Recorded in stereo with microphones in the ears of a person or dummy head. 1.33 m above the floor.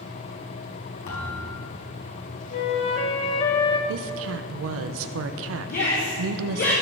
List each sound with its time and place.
1.1 s a thud: 50° left (ahead or behind), 2.5 m
2.5 s a flute: 25° left (ahead or behind), 1.2 m
3.9 s a woman speaking: 80° right, 0.6 m
5.7 s a shout: 45° left (ahead or behind), 1.5 m